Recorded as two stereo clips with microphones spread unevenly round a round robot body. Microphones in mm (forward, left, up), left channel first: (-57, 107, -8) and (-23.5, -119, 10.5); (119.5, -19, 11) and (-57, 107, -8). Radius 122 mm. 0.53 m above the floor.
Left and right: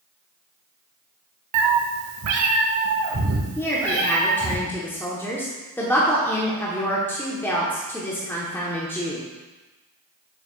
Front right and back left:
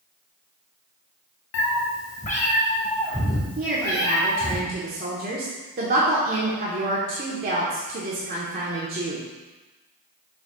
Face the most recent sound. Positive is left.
turn(degrees=175)